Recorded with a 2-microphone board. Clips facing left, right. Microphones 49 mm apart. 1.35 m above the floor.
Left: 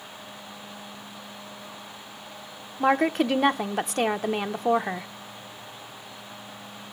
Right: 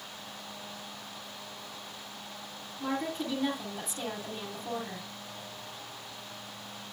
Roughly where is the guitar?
I don't hear a guitar.